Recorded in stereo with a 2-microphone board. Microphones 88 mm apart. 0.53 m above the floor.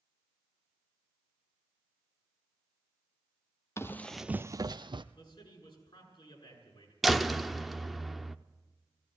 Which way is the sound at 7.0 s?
Centre (ahead or behind).